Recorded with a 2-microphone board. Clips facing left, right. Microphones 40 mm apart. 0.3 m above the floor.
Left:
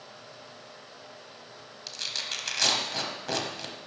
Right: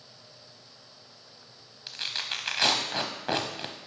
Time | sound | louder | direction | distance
1.9 | tearing paper | right 2 dB | 25° right (ahead or behind) | 0.8 m